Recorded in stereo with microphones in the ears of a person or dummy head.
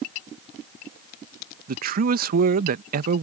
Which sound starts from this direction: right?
A man speaking, at 1.7 s.